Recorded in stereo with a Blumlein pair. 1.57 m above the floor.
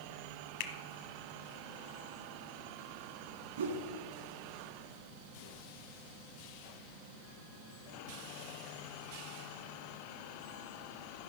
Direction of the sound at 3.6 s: 65° right.